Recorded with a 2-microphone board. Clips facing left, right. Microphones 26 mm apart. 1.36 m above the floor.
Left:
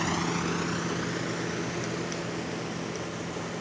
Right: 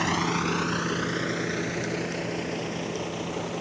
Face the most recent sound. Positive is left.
turn(degrees=-30)  # may be behind; listen again after turning